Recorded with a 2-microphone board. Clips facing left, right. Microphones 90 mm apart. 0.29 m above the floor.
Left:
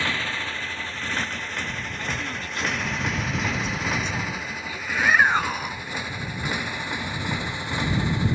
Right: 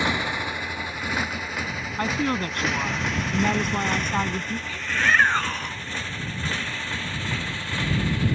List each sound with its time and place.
0.0 s a motorcycle: 15° right (ahead or behind); by 8.3 s 20° left (ahead or behind)
2.0 s a woman speaking: 60° right (ahead or behind)
4.7 s a shout: 10° left (ahead or behind)